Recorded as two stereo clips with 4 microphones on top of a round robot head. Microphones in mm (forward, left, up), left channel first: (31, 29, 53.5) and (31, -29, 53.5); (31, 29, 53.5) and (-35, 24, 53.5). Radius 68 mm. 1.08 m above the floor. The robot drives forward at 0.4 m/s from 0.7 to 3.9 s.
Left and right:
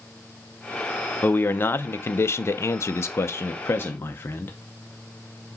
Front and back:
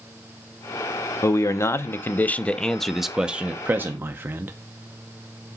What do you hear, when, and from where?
1.2 s a man speaking: 35° left, 0.9 m; by 4.5 s 135° left, 0.8 m